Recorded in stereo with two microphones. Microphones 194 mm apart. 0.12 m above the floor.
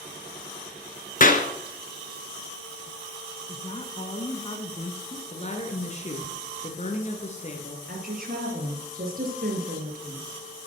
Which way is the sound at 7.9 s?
50° right (ahead or behind).